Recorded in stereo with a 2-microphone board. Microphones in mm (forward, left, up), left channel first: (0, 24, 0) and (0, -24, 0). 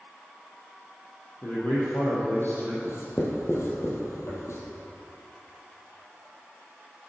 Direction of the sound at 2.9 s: 65° left (ahead or behind).